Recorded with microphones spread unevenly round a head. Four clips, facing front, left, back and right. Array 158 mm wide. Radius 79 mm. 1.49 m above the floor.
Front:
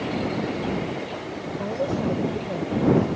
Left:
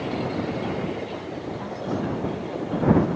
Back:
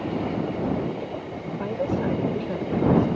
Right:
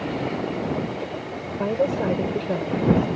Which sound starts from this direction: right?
A woman speaking, at 1.6 s.